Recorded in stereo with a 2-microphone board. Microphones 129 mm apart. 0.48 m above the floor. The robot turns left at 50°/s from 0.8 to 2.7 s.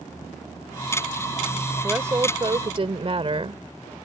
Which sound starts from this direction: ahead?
A woman speaking, at 1.8 s.